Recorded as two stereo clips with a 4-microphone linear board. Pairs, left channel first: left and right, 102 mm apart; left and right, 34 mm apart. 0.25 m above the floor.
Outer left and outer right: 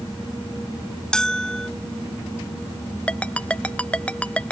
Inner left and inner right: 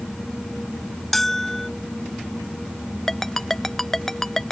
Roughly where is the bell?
Centre.